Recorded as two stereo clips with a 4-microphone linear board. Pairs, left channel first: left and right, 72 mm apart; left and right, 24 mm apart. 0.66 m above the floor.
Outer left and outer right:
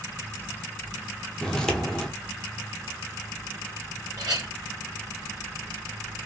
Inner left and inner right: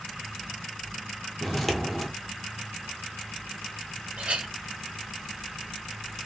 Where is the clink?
75° right (ahead or behind), 2.5 m.